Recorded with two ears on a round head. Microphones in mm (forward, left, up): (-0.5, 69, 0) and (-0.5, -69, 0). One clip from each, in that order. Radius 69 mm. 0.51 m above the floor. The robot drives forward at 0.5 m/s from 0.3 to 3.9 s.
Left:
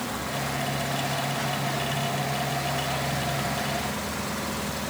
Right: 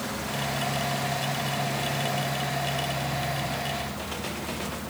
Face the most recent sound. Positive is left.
No sound to turn to.